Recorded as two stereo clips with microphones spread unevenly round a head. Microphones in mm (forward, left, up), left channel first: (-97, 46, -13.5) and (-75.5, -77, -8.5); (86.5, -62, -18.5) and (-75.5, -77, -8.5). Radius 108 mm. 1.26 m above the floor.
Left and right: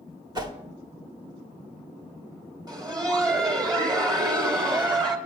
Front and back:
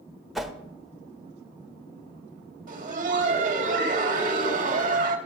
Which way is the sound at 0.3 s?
95° right.